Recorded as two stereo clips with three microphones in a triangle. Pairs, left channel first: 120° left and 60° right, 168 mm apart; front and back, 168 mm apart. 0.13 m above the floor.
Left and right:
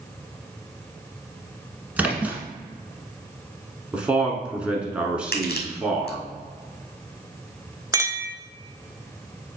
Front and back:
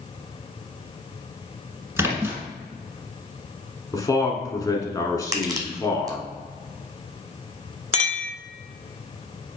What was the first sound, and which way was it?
A splash, 130° right.